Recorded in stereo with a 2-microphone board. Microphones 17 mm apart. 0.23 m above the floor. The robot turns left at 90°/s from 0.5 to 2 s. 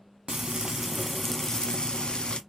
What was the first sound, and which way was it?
Frying, 125° right.